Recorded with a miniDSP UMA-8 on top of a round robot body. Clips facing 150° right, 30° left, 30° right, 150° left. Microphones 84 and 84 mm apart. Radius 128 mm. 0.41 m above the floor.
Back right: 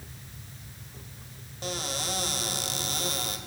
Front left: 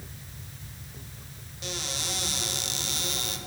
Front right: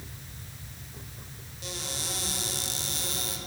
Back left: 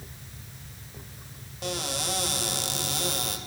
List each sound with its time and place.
1.6 s a cupboard door: 165° left, 2.5 m